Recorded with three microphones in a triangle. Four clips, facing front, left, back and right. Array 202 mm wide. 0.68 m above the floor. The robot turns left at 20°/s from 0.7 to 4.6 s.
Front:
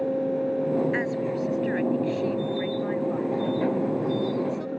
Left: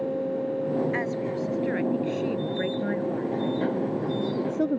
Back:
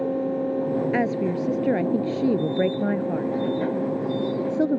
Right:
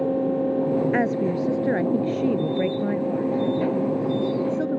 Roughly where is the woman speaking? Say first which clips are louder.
Right 6 dB, back 3 dB; behind right.